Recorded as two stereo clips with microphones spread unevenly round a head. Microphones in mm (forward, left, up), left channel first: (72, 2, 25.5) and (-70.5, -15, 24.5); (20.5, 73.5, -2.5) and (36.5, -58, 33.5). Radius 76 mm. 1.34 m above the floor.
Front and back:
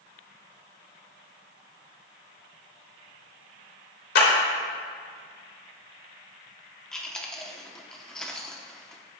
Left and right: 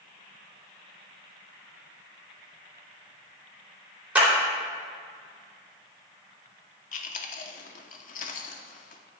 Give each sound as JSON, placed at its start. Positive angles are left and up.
{"t": 4.2, "sound": "a clap", "azimuth_deg": -5, "distance_m": 3.5}
{"t": 6.9, "sound": "chewing", "azimuth_deg": 90, "distance_m": 1.0}